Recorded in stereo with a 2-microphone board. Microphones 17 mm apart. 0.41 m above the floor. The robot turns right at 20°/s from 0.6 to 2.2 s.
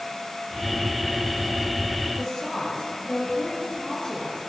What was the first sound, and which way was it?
A woman speaking, 50° left (ahead or behind).